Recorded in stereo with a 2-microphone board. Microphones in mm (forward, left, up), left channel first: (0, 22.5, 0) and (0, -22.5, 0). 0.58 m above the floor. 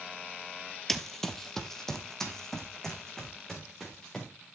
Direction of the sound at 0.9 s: 5° left (ahead or behind).